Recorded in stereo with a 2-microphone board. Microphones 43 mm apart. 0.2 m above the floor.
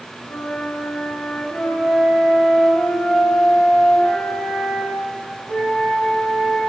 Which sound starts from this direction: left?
A flute, at 0.3 s.